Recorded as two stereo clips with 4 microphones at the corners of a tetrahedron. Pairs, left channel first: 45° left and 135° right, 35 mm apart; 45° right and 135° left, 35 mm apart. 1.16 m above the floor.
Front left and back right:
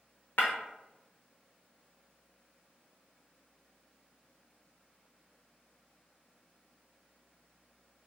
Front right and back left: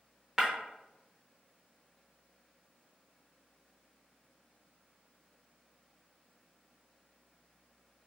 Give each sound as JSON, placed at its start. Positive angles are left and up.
{"t": 0.4, "sound": "breaking glass", "azimuth_deg": 65, "distance_m": 0.6}